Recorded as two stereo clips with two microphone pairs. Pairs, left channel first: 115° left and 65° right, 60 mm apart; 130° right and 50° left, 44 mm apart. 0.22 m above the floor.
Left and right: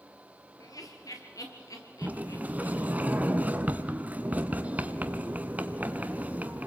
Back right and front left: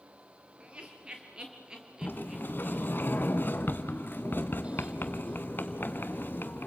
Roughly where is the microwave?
No microwave in this recording.